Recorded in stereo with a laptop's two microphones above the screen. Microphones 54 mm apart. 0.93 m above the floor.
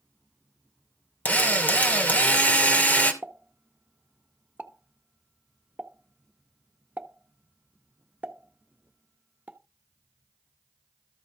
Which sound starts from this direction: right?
A pop, at 3.2 s.